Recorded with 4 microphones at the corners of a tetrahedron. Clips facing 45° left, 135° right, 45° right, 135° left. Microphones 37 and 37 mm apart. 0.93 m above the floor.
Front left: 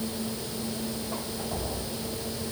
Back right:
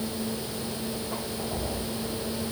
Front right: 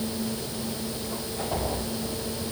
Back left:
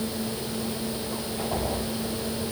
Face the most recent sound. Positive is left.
No sound to turn to.